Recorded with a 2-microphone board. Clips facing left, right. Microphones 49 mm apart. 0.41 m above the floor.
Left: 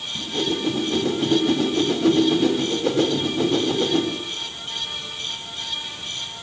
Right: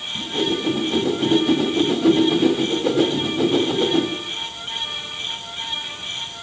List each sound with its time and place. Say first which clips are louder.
0.1 s a whoosh: right 2 dB; 10° right (ahead or behind), 2.5 m